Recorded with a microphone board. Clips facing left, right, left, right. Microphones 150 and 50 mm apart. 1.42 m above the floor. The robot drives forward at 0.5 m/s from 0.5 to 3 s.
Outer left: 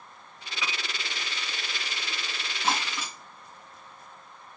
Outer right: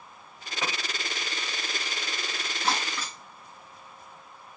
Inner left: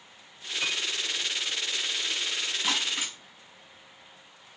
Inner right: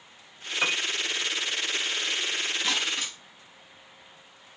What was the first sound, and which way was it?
A piano, 50° right (ahead or behind).